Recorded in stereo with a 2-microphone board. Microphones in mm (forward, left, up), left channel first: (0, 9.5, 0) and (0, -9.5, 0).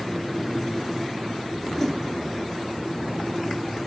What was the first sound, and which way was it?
A whoosh, 15° left (ahead or behind).